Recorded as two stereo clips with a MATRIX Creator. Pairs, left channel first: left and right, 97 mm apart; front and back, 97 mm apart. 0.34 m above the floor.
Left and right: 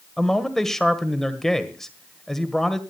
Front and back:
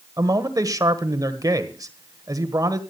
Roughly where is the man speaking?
Behind.